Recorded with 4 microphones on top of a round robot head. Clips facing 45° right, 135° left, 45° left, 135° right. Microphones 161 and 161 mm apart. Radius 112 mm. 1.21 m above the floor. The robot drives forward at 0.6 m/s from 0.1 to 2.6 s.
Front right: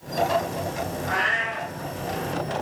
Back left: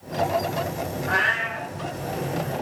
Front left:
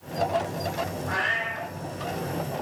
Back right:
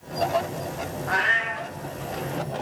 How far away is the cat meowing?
About 1.3 m.